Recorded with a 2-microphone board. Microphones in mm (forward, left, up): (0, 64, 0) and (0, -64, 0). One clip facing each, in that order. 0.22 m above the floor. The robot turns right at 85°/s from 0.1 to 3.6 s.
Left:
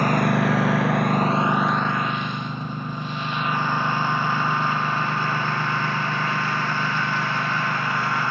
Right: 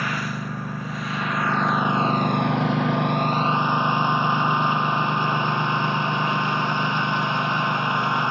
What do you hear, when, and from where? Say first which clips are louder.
0.0 s a lawn mower: left 9 dB; 45° left (ahead or behind); by 8.3 s 20° right (ahead or behind)